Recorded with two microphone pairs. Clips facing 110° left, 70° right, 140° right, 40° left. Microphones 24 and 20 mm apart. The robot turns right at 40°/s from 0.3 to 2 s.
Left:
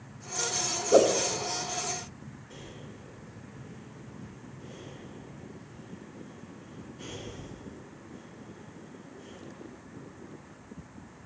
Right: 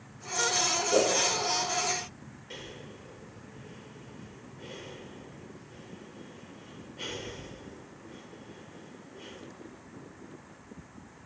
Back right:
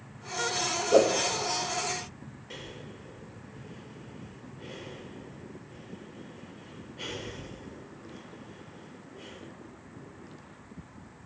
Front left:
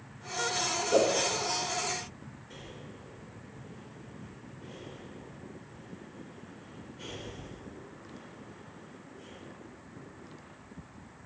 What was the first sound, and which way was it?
A whoosh, 145° left.